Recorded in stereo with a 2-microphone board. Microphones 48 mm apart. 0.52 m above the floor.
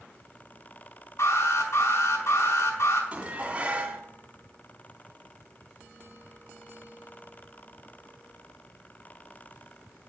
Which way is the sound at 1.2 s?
65° left (ahead or behind).